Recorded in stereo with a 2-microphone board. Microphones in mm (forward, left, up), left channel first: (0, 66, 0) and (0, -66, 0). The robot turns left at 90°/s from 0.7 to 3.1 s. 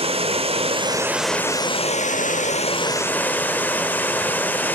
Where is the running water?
130° right, 0.8 m; by 4.8 s 15° left, 0.8 m.